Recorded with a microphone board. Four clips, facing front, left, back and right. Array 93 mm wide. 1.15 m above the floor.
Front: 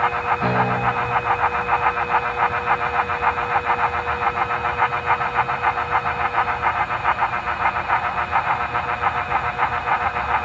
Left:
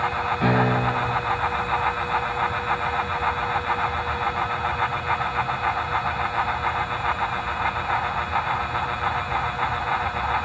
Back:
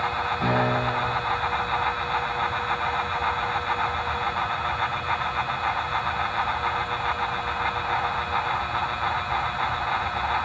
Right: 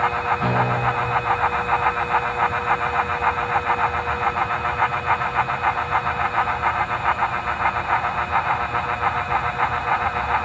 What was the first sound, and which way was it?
A piano, 95° left.